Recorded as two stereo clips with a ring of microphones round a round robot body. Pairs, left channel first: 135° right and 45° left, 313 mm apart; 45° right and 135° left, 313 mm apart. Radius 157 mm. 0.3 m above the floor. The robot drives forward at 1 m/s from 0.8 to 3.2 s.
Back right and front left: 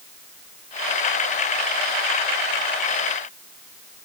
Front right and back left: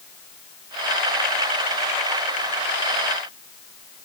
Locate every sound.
Only background noise.